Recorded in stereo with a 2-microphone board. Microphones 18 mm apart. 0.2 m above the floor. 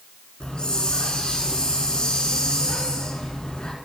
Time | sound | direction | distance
0.4 | a hiss | 60° left (ahead or behind) | 2 m